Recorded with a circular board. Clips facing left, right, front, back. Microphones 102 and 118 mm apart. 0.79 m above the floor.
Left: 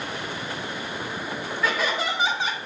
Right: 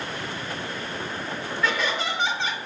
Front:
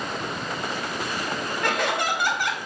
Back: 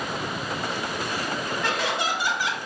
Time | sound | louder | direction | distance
1.6 | laughter | left 1 dB, front 3 dB | 5° left | 1.4 m